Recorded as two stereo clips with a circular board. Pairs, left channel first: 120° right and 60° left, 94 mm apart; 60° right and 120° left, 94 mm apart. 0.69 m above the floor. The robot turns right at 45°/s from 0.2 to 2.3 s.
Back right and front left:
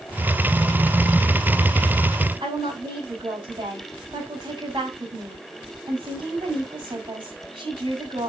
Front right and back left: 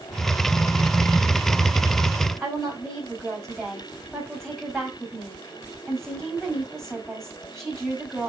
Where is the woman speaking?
25° left, 4.5 m.